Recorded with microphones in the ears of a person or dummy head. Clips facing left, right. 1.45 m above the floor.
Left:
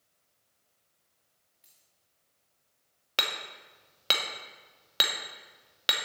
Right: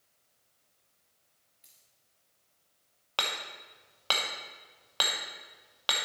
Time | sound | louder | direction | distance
1.6 | a dropped coin | right 1 dB | centre (ahead or behind) | 1.2 m
3.2 | hammering | even | 25° left (ahead or behind) | 1.0 m